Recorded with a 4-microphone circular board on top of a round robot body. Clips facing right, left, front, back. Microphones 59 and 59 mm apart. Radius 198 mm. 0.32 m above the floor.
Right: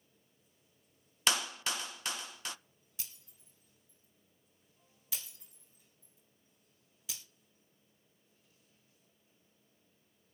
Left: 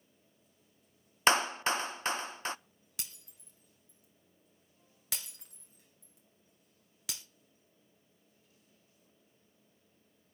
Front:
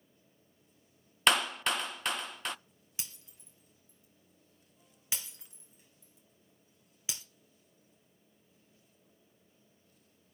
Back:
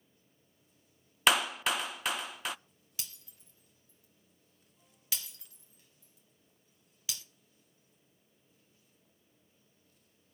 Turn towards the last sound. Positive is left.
turn(degrees=65)